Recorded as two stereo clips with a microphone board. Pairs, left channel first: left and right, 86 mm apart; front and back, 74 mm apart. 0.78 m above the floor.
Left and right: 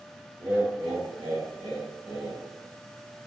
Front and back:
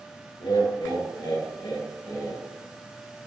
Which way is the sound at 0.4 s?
20° right.